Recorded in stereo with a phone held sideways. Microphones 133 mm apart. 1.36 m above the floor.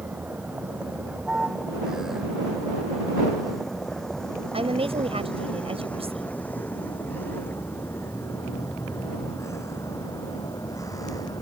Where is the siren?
I don't hear a siren.